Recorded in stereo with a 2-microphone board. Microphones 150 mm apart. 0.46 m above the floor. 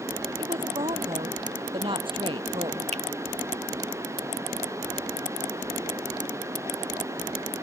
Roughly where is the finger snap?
Right.